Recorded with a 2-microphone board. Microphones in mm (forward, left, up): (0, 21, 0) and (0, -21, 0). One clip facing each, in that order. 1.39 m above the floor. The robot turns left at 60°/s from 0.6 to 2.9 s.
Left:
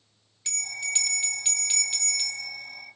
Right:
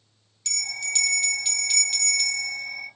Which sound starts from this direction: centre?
A bell, at 0.5 s.